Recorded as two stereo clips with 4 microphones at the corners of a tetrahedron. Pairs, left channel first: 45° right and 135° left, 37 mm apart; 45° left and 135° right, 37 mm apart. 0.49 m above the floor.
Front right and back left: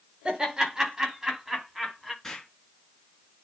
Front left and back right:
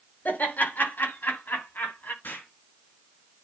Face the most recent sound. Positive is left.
turn(degrees=40)